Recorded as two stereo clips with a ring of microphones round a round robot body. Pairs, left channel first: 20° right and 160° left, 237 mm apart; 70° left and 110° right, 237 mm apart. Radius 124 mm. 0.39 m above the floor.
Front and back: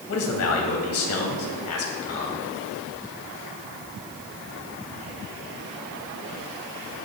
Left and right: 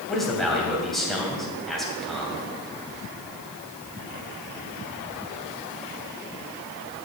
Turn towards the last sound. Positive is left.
turn(degrees=-20)